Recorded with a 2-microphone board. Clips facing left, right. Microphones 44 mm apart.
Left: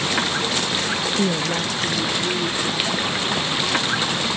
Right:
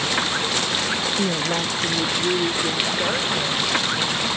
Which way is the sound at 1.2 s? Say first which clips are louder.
Left 1 dB; 5° left (ahead or behind).